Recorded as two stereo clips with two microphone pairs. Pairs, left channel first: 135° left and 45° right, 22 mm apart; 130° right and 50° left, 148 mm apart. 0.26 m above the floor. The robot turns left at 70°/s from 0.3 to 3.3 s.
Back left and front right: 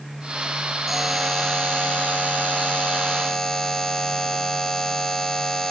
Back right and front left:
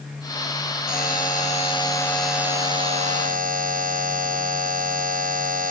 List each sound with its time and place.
0.9 s a buzzer: 125° right, 1.7 m; by 5.7 s 65° left, 1.7 m